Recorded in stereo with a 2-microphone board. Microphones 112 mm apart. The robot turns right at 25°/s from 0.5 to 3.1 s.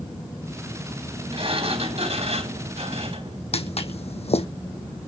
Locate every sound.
1.3 s a sliding door: 120° right, 3.5 m; by 3.4 s 75° right, 3.5 m
3.5 s footsteps: 70° left (ahead or behind), 1.5 m